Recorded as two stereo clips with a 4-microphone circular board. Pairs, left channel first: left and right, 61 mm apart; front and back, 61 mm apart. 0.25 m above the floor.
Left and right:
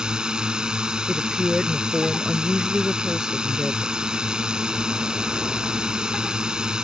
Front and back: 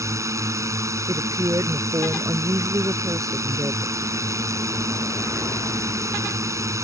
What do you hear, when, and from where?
0.0 s a drone: 165° right
1.1 s a woman speaking: straight behind